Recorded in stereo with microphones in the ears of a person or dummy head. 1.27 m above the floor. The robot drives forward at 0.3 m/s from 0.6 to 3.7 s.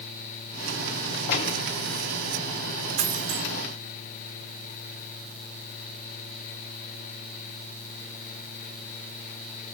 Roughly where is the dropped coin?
Right.